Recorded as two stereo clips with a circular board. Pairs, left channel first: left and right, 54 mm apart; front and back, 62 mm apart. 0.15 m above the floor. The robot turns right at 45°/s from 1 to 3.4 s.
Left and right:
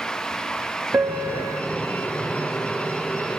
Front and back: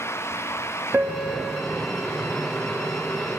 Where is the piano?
125° right, 2 m; by 1.6 s 95° right, 2 m.